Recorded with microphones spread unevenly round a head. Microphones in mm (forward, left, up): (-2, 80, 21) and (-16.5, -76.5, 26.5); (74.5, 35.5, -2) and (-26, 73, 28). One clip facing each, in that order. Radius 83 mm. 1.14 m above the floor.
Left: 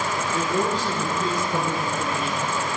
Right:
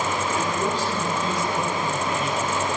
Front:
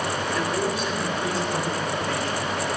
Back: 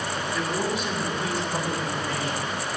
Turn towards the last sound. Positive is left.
turn(degrees=80)